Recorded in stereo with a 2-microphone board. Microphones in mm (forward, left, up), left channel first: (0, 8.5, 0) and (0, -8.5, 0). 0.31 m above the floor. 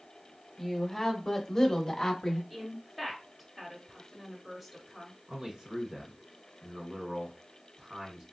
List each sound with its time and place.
0.6 s a woman speaking: 15° left (ahead or behind), 1.0 m; by 2.4 s 35° left (ahead or behind), 1.4 m
2.5 s a woman speaking: 15° right (ahead or behind), 1.5 m
5.3 s a man speaking: 55° right (ahead or behind), 2 m